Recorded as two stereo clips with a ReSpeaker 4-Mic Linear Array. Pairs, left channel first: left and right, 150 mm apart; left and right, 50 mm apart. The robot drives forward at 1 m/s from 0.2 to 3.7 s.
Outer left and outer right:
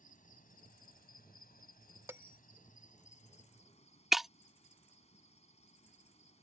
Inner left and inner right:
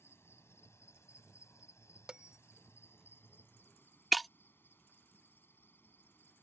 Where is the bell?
15° right (ahead or behind).